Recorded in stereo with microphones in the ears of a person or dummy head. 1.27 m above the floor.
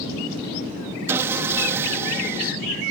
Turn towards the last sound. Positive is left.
turn(degrees=-20)  # may be behind; listen again after turning